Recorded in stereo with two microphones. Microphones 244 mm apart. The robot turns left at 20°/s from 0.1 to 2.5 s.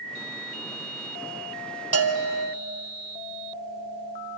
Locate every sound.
1.9 s a bell: 60° right (ahead or behind), 1.4 m; by 2.5 s 55° right (ahead or behind), 1.4 m